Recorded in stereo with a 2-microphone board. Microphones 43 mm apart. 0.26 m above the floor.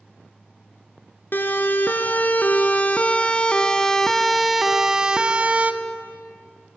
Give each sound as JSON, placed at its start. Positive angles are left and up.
{"t": 1.3, "sound": "a siren", "side_deg": 50, "distance_m": 3.0}